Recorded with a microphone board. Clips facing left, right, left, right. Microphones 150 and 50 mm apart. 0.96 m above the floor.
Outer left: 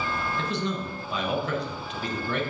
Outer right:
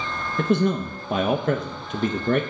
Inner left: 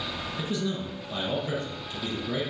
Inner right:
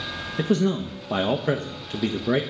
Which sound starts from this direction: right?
A man speaking, at 0.4 s.